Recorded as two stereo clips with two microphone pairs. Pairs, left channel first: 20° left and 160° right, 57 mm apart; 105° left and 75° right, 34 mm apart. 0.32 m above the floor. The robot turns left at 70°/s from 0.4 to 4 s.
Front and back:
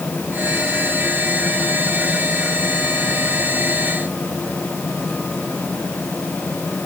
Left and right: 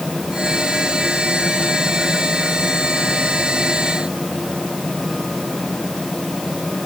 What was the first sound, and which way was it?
Only background noise.